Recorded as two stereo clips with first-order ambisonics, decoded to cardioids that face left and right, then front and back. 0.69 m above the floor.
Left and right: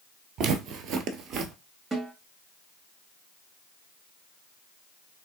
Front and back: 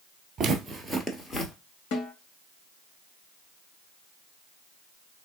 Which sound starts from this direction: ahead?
A snare drum, at 1.9 s.